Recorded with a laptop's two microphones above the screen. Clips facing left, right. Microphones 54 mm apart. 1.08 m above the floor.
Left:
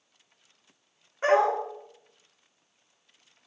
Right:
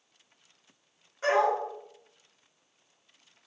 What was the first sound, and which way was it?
A dog barking, 30° left (ahead or behind).